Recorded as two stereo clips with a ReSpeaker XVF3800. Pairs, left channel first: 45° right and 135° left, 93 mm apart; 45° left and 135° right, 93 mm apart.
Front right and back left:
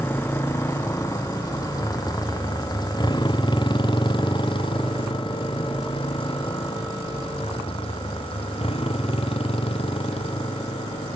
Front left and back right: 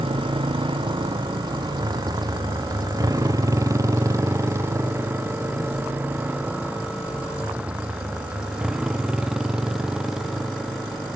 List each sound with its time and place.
0.0 s a motorcycle: 110° right; by 11.2 s 50° right